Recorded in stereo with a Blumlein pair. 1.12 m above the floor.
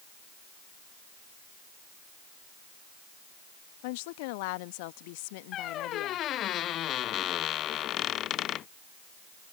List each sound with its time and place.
3.8 s a woman speaking: 50° left
5.5 s a squeak: 30° left